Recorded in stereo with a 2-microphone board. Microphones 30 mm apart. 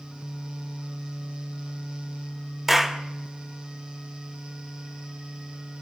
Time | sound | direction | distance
2.7 | a clap | 15° right (ahead or behind) | 0.9 m